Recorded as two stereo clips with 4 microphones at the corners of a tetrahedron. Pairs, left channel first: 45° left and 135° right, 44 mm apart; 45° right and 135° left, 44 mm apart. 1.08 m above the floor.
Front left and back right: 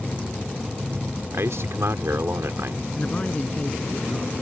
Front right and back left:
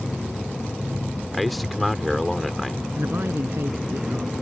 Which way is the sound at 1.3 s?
130° right.